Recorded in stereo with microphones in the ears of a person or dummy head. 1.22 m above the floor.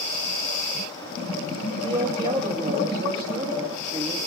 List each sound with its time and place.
1.8 s a woman speaking: 25° right (ahead or behind), 2.5 m